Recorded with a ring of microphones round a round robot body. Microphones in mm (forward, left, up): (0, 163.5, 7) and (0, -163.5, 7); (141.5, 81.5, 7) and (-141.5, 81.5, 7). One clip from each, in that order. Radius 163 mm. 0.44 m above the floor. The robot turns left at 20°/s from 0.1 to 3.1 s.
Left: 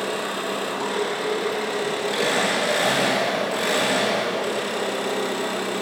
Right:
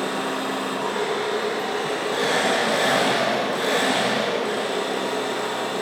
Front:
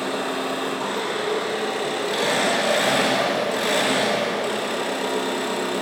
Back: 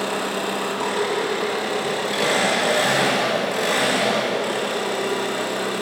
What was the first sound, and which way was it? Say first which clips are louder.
An engine running: right 1 dB, back 1 dB; 145° left.